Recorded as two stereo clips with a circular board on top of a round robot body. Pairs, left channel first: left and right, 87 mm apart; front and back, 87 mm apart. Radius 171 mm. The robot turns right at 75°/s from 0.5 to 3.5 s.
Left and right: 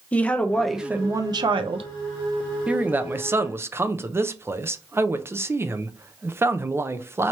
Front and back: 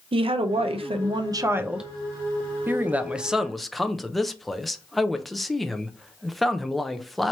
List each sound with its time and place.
0.1 s a woman speaking: 165° left, 0.6 m; by 1.9 s 90° right, 0.6 m
2.7 s a man speaking: 150° right, 0.7 m; by 7.3 s 90° right, 0.7 m